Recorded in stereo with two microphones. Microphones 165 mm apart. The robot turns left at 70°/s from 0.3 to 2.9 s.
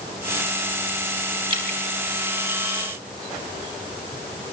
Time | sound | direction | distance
1.5 | dripping | 30° right (ahead or behind) | 6 m